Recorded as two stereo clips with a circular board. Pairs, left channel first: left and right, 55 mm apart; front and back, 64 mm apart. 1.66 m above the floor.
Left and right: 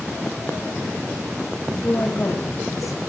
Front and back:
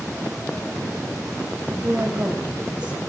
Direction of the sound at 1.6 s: 110° left.